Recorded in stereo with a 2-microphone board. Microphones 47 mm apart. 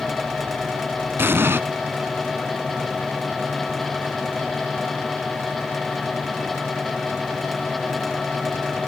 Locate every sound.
1.2 s an explosion: 55° right (ahead or behind), 0.8 m